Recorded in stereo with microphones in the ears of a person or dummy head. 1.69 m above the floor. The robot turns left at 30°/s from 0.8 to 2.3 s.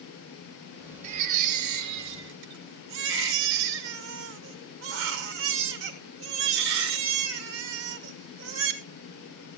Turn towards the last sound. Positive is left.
turn(degrees=-80)